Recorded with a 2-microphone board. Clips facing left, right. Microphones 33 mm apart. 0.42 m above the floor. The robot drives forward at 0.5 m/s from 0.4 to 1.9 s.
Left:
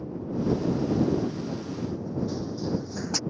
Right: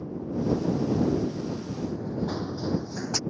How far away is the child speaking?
I don't hear a child speaking.